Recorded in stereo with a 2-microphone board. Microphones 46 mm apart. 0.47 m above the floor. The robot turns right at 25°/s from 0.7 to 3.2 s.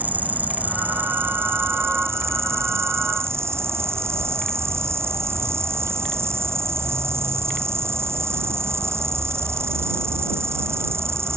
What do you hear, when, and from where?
0.0 s an insect: 140° right; by 11.4 s 80° right